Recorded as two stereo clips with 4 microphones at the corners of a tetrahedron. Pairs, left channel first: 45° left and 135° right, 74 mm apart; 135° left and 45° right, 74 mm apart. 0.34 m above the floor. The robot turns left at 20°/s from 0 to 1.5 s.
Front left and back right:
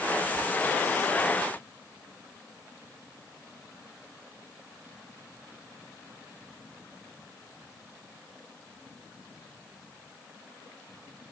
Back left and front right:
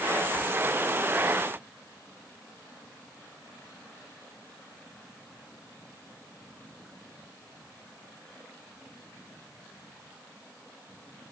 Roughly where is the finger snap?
I don't hear a finger snap.